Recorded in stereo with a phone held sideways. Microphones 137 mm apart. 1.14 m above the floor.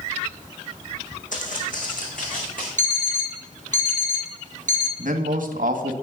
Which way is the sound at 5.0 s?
75° right (ahead or behind).